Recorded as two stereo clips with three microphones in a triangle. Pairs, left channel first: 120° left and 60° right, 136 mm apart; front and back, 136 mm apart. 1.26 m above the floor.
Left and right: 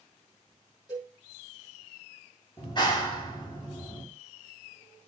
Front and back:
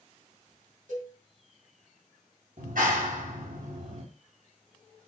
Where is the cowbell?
Straight behind, 7 m.